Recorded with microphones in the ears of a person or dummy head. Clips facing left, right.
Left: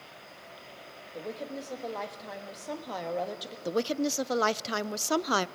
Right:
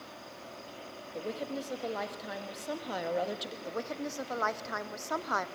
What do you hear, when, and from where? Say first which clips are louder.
0.0 s an insect: right 3 dB; 60° right (ahead or behind), 3 m
1.1 s a woman speaking: right 1 dB; 5° right (ahead or behind), 1.6 m
3.6 s a woman speaking: left 9 dB; 40° left (ahead or behind), 0.5 m